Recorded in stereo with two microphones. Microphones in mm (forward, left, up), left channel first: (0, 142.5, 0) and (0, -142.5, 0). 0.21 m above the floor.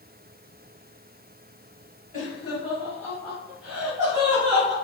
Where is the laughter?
30° left (ahead or behind), 1.4 m; by 4.7 s 25° right (ahead or behind), 1.6 m.